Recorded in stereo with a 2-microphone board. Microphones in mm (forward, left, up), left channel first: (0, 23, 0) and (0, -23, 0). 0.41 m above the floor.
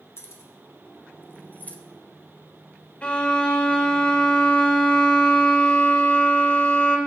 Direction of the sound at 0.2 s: 75° left (ahead or behind).